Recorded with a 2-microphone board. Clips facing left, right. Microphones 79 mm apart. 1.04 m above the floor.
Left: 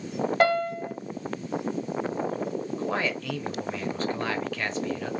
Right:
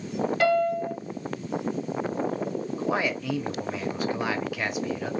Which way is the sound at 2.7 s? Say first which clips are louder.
Right 3 dB; 10° right (ahead or behind).